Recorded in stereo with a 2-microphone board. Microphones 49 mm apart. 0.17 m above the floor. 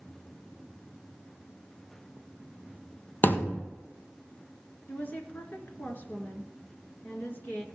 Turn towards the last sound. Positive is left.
turn(degrees=40)  # may be behind; listen again after turning